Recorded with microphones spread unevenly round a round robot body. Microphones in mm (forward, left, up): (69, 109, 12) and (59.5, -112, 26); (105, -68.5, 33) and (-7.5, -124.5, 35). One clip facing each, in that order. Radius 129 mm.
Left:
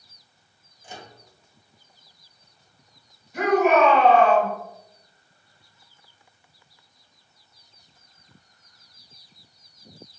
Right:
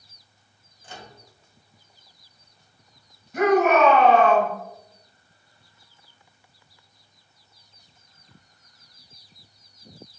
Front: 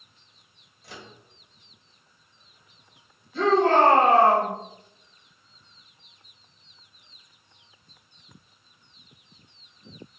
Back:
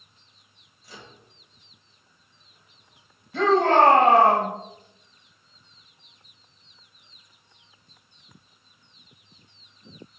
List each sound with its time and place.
0.8 s a microwave: 15° left, 2 m
3.3 s a shout: 145° right, 3.5 m